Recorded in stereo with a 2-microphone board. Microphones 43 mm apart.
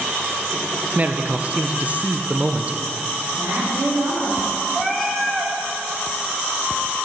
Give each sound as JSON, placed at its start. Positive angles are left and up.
{"t": 0.9, "sound": "a man speaking", "side_deg": -35, "distance_m": 0.6}
{"t": 3.3, "sound": "a woman speaking", "side_deg": -60, "distance_m": 4.0}
{"t": 4.7, "sound": "a cat meowing", "side_deg": 0, "distance_m": 1.2}